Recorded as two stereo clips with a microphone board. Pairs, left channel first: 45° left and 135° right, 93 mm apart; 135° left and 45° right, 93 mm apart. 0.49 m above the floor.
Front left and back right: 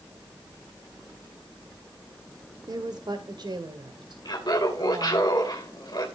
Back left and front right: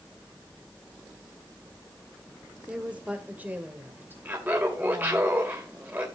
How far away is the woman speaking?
About 1.4 m.